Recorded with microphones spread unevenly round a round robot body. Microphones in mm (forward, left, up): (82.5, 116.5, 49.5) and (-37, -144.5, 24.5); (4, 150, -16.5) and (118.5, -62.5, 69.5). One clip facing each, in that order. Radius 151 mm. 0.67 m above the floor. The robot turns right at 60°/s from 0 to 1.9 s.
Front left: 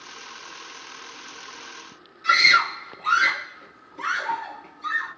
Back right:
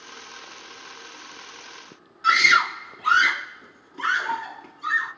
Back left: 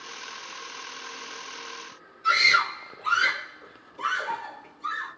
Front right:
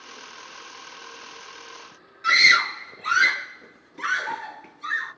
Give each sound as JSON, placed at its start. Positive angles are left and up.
{"t": 2.2, "sound": "a scream", "azimuth_deg": -70, "distance_m": 1.5}